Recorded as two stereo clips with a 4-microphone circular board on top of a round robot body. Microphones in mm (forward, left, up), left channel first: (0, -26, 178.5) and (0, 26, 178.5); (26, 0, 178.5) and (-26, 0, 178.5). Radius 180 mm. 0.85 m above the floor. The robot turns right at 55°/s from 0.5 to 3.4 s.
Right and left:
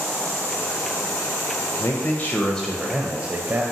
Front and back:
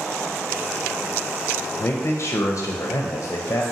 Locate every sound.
1.8 s a man speaking: 50° right, 0.5 m; by 3.6 s 40° left, 0.5 m